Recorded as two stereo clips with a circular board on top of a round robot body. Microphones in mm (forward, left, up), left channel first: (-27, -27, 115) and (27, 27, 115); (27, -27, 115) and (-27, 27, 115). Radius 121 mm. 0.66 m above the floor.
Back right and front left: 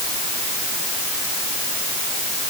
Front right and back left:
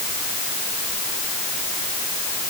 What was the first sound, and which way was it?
Only background noise.